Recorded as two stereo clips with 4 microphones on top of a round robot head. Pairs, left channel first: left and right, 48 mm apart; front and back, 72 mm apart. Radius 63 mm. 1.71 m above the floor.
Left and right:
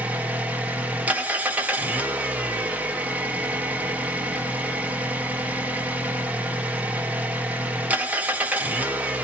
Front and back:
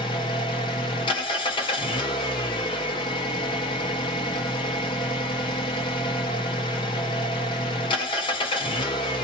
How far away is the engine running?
About 2 m.